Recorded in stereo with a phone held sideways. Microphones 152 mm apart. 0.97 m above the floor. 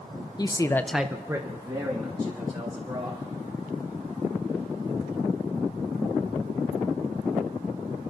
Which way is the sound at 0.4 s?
25° left (ahead or behind).